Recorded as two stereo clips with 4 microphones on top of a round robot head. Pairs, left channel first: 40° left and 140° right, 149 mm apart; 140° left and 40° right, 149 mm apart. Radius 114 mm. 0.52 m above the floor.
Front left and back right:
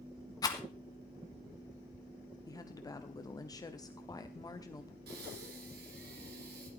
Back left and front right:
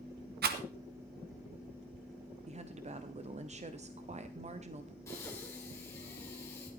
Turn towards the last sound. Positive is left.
turn(degrees=-150)